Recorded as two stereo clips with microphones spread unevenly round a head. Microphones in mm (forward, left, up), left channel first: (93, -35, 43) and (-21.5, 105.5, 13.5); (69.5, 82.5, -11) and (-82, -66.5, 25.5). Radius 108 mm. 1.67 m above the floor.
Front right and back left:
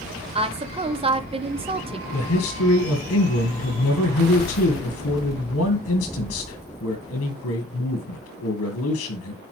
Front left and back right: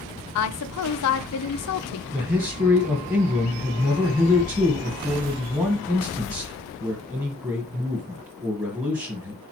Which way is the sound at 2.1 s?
60° right.